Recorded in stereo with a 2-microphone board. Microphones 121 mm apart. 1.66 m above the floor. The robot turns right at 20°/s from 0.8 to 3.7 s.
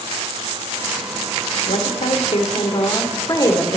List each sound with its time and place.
1.7 s a woman speaking: 115° left, 1.6 m; by 3.8 s 160° left, 1.6 m